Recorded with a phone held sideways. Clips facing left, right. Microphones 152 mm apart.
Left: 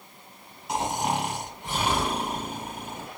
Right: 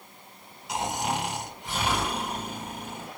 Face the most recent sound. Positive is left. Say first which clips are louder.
# left 2 dB
turn(degrees=55)  # may be behind; listen again after turning